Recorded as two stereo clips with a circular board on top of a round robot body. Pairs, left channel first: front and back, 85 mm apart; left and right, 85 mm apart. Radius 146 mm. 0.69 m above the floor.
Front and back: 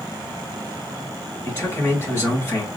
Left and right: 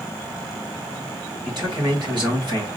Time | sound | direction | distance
1.4 | a man speaking | 60° right | 3.5 m